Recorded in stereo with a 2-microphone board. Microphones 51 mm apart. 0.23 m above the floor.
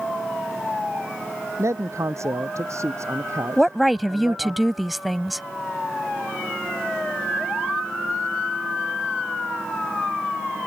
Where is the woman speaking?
Centre (ahead or behind).